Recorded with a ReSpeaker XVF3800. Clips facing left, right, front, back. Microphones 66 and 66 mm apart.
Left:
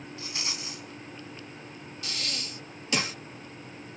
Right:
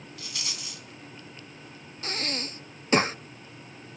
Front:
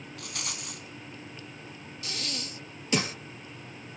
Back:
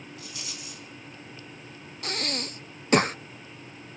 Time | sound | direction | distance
0.2 | a rattle | 25° left | 3.5 m
2.0 | breathing | 140° right | 0.5 m